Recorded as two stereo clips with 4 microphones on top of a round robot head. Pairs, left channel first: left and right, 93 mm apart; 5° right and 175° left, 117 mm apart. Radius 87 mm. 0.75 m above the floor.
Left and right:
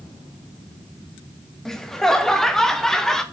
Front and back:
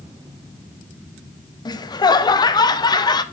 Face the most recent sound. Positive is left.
turn(degrees=10)